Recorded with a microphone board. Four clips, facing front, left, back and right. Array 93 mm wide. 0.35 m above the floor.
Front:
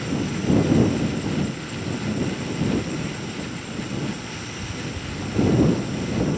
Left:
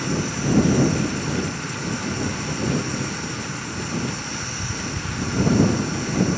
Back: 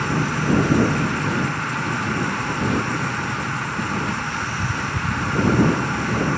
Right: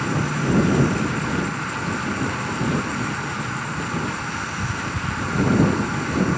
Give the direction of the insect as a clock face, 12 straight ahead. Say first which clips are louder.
Right 2 dB, back 4 dB; 5 o'clock.